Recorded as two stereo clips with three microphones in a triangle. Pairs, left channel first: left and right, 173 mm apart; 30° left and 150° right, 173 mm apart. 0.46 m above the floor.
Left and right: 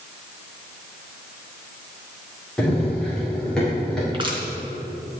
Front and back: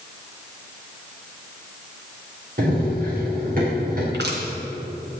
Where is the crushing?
150° right, 3.5 m.